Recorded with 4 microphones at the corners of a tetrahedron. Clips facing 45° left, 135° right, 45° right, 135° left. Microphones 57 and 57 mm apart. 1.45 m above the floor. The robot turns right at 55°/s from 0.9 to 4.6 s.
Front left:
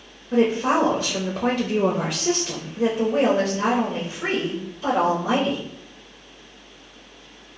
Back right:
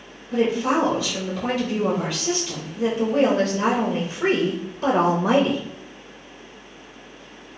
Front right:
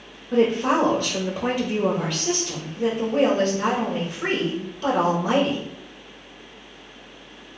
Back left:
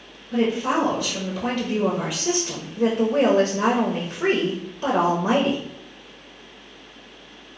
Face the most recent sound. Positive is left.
turn(degrees=-165)